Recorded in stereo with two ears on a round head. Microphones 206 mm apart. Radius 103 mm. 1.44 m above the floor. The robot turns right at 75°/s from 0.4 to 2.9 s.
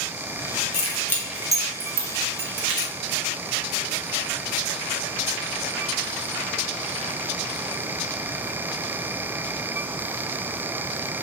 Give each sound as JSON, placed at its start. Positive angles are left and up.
{"t": 0.7, "sound": "keys jangling", "side_deg": 30, "distance_m": 0.9}